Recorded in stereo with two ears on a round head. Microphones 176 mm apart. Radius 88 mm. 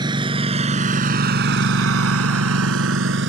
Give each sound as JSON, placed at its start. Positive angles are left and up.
{"t": 0.0, "sound": "a lawn mower", "side_deg": -20}